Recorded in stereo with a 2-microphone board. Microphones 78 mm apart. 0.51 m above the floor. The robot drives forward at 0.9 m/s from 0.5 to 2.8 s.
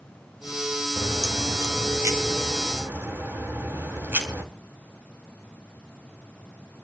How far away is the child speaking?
I don't hear a child speaking.